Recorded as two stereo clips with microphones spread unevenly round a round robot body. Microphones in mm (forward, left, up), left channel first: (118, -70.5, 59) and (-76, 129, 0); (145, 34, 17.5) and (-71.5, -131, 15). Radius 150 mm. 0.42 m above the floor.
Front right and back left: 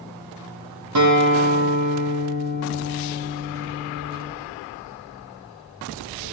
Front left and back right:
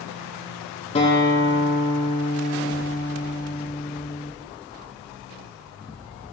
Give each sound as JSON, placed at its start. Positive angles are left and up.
{"t": 0.9, "sound": "a guitar", "azimuth_deg": 110, "distance_m": 5.5}